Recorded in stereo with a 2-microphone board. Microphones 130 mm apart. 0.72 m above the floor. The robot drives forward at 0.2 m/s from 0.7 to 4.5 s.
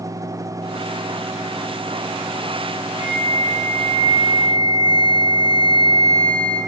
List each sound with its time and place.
3.0 s a flute: 35° right (ahead or behind), 2 m; by 6.6 s 30° right (ahead or behind), 2.5 m